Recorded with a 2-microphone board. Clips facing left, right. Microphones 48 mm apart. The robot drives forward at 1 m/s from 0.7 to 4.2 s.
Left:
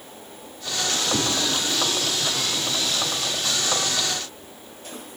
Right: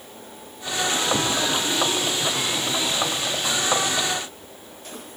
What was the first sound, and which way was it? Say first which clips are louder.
A whoosh: left 1 dB; 20° left (ahead or behind).